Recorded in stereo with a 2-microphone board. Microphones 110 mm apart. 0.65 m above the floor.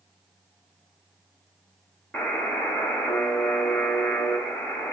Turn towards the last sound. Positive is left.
turn(degrees=15)  # may be behind; listen again after turning